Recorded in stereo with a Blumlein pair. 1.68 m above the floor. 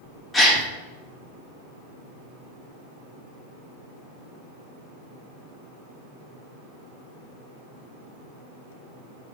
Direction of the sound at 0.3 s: 10° left.